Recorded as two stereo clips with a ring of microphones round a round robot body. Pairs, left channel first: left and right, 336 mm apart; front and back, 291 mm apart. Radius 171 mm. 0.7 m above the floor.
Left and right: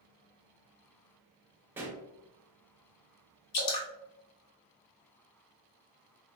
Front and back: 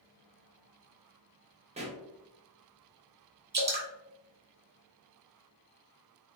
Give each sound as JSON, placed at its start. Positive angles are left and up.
{"t": 1.8, "sound": "a pop", "azimuth_deg": -165, "distance_m": 0.7}
{"t": 3.5, "sound": "dripping", "azimuth_deg": 120, "distance_m": 1.1}